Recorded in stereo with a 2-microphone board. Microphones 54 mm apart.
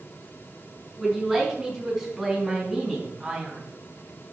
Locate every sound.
1.0 s a man speaking: 5° left (ahead or behind), 4.5 m; by 3.6 s 5° right (ahead or behind), 2.5 m